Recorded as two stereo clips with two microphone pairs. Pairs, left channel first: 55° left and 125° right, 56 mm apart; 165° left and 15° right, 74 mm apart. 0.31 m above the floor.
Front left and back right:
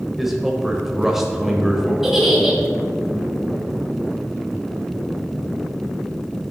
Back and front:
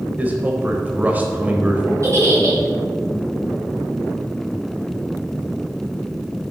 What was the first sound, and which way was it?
A man speaking, 50° right.